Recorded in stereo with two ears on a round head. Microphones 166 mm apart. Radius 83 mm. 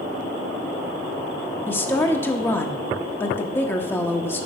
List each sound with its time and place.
1.7 s a woman speaking: 10° left (ahead or behind), 0.9 m